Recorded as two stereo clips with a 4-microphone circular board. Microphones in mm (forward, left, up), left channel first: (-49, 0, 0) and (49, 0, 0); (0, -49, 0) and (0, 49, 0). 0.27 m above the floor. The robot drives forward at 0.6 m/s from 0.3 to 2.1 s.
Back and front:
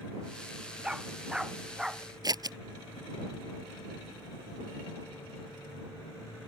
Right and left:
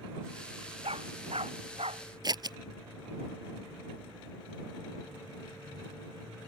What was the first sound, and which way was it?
A dog barking, 85° left.